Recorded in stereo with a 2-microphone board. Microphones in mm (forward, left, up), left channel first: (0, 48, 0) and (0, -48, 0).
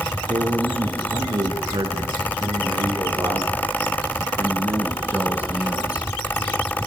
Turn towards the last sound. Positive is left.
turn(degrees=-10)  # may be behind; listen again after turning